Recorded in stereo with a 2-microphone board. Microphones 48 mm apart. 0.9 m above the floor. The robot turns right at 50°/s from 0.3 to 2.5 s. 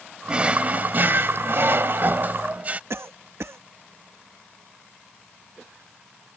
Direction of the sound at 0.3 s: 155° right.